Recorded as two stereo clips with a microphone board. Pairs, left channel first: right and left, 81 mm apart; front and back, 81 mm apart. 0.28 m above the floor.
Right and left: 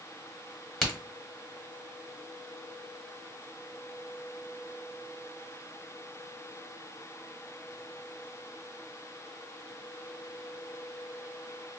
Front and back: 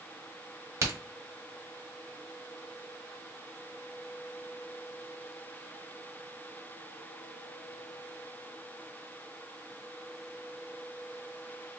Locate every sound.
0.8 s a crack: 170° right, 1.2 m